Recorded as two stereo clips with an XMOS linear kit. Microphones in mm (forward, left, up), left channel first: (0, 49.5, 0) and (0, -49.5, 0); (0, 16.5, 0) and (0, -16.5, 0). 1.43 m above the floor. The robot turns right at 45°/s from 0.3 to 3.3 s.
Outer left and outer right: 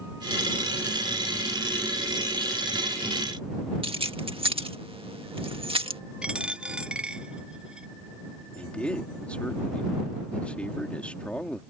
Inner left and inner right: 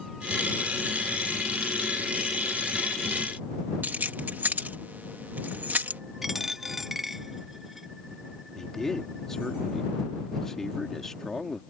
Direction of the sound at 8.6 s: 10° left (ahead or behind).